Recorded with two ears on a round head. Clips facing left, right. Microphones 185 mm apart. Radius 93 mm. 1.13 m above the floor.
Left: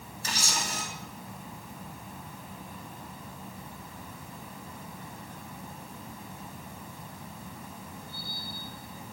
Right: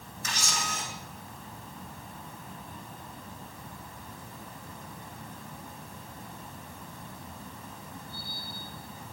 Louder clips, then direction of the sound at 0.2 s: Left 1 dB; 30° left (ahead or behind).